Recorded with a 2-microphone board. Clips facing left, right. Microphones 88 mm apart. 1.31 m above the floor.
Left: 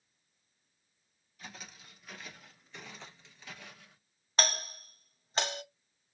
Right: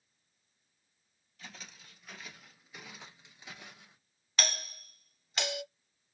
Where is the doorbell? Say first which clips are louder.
Left 4 dB; 40° left (ahead or behind), 0.9 m.